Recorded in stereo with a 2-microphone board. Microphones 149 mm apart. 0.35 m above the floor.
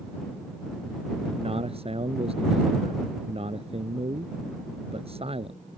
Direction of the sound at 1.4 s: 40° right (ahead or behind).